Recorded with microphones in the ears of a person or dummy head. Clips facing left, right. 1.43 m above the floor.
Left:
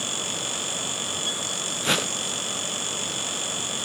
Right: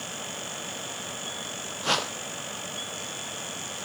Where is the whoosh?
30° left (ahead or behind), 0.6 m.